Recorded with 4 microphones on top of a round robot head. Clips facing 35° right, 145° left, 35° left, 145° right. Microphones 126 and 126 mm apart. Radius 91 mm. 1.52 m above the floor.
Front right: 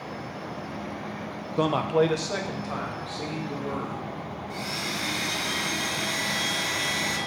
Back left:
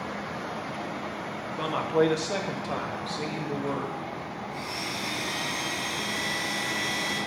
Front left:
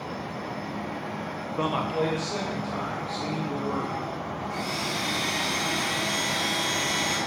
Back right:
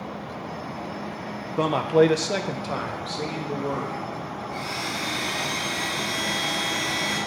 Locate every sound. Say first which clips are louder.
1.6 s a man speaking: front right 2 dB, back right 8 dB; 80° right, 0.9 m; by 4.0 s 170° right, 2.5 m
4.5 s a blender: front right 1 dB, even; 40° right, 1.9 m